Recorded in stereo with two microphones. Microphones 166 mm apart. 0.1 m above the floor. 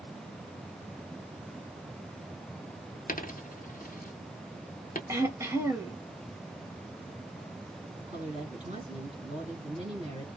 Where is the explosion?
I don't hear an explosion.